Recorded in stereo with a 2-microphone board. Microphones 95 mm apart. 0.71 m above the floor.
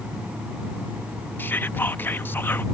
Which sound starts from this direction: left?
Whispering, at 1.4 s.